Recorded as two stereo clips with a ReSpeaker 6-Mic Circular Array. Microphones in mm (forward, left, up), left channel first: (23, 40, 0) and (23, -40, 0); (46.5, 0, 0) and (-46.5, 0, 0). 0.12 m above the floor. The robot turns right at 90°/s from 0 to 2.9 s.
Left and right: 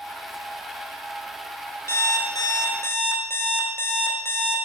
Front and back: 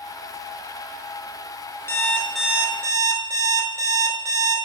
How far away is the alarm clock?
About 0.7 m.